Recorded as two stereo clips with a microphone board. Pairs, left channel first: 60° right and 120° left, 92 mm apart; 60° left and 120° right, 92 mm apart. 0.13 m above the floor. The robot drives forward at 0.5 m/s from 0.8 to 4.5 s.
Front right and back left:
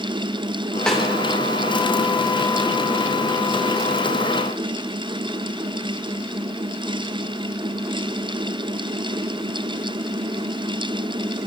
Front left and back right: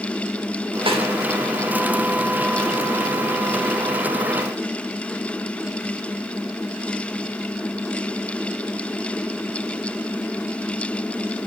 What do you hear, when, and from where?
0.9 s a snare drum: 145° right, 8.5 m